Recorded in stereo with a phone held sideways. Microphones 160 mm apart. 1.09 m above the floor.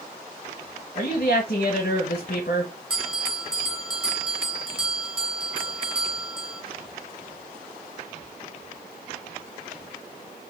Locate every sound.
0.9 s a woman speaking: 70° left (ahead or behind), 0.8 m
2.9 s a bell: 5° right (ahead or behind), 1.8 m